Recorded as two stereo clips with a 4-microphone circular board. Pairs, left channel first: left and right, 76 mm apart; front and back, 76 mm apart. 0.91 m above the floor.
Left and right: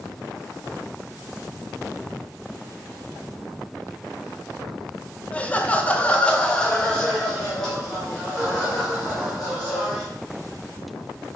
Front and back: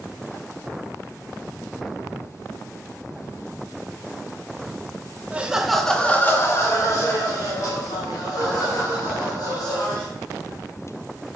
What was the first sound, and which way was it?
Laughter, 135° left.